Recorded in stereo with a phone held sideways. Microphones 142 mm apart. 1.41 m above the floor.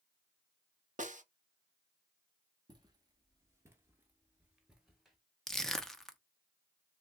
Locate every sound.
1.0 s a snare drum: 65° right (ahead or behind), 0.8 m
2.7 s footsteps: 30° right (ahead or behind), 1.6 m; by 5.2 s centre (ahead or behind), 1.6 m
5.5 s crushing: 5° left (ahead or behind), 0.7 m